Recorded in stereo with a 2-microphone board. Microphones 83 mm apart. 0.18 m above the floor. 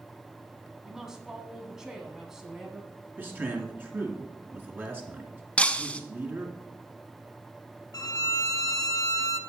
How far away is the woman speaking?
About 1.4 m.